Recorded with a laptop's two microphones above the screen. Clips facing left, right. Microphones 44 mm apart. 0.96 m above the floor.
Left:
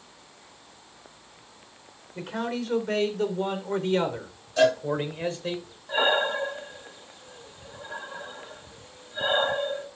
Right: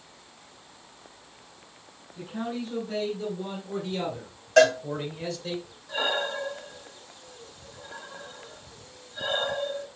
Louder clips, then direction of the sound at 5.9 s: Left 5 dB; 25° left (ahead or behind).